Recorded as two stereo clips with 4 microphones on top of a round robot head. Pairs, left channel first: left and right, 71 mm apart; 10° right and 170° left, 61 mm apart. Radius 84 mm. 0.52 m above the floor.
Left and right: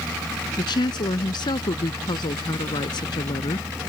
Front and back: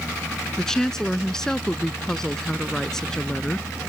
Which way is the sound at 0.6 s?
70° left.